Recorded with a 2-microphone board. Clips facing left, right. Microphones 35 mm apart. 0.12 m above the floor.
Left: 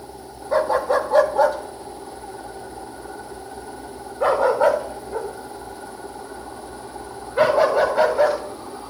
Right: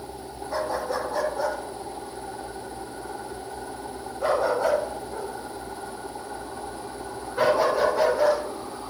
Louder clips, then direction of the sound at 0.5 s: Left 9 dB; 45° left (ahead or behind).